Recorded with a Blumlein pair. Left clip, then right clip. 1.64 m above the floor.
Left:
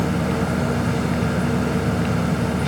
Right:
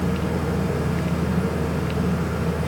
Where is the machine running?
30° left, 1.2 m.